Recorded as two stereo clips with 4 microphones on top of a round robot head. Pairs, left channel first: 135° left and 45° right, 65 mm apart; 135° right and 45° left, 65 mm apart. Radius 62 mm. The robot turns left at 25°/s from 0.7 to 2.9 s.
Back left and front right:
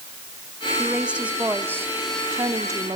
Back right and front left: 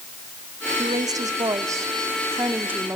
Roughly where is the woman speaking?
Ahead left.